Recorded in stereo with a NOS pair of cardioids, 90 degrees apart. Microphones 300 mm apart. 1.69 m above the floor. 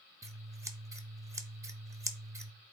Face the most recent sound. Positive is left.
turn(degrees=-10)